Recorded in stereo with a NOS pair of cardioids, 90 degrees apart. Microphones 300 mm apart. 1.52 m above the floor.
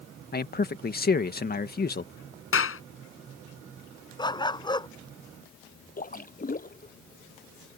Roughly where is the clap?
Ahead left.